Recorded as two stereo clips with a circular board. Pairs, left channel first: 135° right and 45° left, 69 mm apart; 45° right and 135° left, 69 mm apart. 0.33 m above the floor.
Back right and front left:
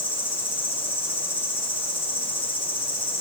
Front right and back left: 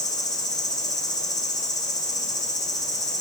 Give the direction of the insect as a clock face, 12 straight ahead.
3 o'clock.